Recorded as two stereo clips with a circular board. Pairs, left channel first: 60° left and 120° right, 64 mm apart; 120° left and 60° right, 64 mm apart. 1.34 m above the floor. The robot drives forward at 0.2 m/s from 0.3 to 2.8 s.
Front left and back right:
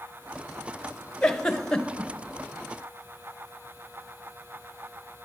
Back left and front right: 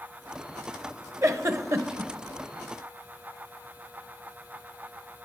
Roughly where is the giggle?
Ahead.